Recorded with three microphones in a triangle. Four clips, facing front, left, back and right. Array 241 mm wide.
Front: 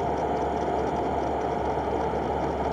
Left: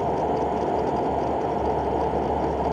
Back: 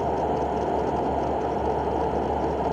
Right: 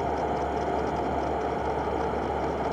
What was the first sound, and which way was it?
Only background noise.